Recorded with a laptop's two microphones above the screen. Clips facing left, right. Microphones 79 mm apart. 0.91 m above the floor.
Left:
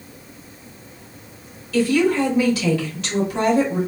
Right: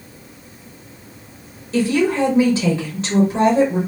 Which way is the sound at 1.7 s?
30° right (ahead or behind).